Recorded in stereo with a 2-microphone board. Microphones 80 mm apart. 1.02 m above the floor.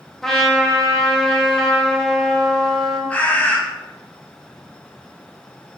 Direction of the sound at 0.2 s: 5° left (ahead or behind).